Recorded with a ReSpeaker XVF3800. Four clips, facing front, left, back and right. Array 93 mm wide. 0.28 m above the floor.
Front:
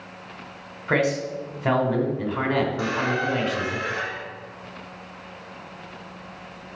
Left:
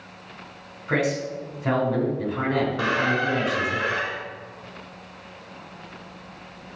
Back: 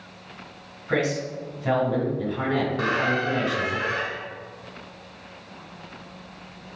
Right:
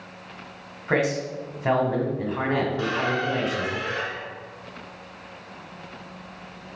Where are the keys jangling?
I don't hear keys jangling.